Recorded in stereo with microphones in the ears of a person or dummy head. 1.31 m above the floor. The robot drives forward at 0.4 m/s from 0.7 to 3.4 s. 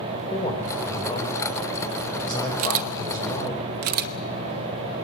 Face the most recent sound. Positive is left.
turn(degrees=-45)  # may be behind; listen again after turning